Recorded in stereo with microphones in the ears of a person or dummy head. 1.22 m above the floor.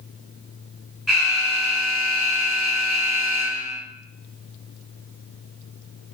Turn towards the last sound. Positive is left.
turn(degrees=0)  # may be behind; listen again after turning